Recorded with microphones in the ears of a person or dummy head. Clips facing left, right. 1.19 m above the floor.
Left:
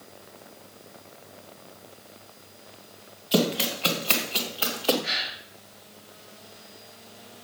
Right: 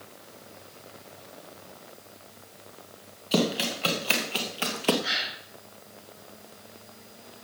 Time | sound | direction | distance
3.3 | running footsteps | 10° right (ahead or behind) | 2.5 m
5.0 | a gasp | 75° right (ahead or behind) | 5.5 m